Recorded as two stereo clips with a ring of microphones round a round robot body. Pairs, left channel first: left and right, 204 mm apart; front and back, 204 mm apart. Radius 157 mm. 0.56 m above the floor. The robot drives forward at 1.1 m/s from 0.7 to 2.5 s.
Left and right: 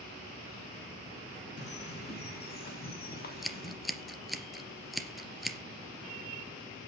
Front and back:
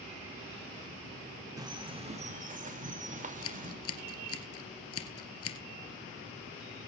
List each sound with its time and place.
1.6 s a bird: 110° left, 2 m; by 3.8 s 135° left, 2.5 m
3.4 s scissors: straight ahead, 2.5 m